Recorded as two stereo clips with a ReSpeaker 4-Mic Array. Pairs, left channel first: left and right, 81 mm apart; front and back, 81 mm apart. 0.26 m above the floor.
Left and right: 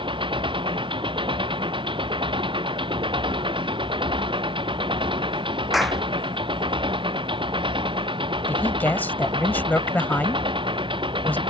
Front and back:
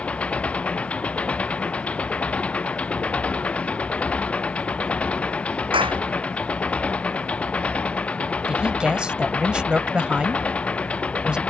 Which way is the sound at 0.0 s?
75° right.